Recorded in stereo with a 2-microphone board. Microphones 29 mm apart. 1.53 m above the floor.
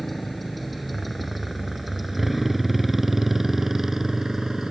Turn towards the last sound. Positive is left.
turn(degrees=-15)  # may be behind; listen again after turning